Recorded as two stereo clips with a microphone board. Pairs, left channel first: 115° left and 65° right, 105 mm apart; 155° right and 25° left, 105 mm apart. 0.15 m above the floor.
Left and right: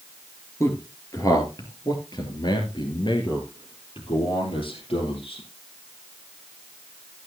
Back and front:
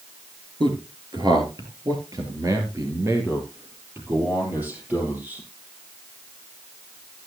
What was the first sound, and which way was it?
A man speaking, 55° left.